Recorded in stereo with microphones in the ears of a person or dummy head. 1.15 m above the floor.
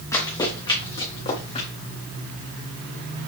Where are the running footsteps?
10° left (ahead or behind), 3.5 m; by 1.7 s 30° left (ahead or behind), 4 m.